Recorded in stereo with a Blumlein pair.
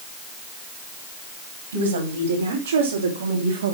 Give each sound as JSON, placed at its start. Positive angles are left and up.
{"t": 1.7, "sound": "a woman speaking", "azimuth_deg": -65, "distance_m": 4.0}